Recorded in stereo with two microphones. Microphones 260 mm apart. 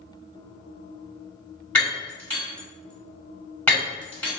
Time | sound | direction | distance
1.8 | breaking glass | 5° left (ahead or behind) | 1.9 m